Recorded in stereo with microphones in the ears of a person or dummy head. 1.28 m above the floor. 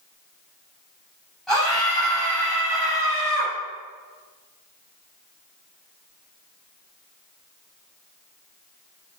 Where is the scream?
Centre (ahead or behind), 7.5 m.